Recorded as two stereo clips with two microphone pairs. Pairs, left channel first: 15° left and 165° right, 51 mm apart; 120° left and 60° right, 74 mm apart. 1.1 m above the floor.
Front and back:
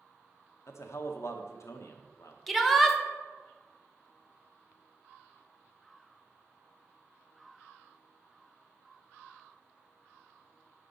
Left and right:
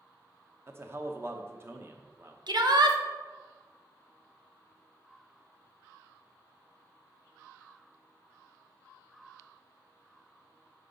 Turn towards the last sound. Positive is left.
turn(degrees=-75)